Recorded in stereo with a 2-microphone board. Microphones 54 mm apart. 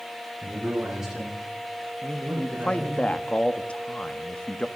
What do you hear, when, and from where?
0.4 s a man speaking: 10° right (ahead or behind), 5 m
2.0 s a man speaking: 20° left (ahead or behind), 0.8 m